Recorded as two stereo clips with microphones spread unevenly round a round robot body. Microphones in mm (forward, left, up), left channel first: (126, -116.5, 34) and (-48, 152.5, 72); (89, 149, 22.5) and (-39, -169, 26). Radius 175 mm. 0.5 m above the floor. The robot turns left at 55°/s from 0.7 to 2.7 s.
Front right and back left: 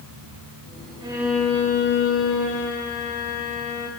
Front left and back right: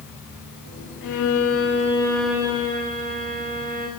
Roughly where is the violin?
Ahead left.